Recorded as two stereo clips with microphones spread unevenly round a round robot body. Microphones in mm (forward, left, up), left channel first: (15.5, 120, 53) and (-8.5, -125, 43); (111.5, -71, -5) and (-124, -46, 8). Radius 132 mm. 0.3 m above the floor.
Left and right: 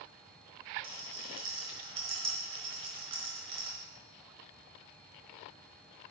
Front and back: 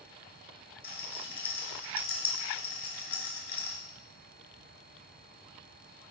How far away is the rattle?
About 2.5 m.